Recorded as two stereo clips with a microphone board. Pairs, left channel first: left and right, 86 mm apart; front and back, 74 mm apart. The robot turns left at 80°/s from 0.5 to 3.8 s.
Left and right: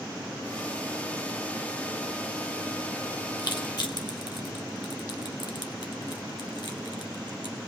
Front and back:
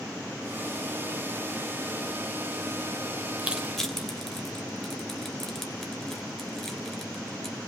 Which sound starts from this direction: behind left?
Crushing, at 3.4 s.